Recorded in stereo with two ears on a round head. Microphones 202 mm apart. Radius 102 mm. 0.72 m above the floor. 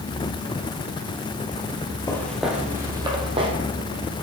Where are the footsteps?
15° left (ahead or behind), 1.0 m; by 3.5 s 25° right (ahead or behind), 1.7 m.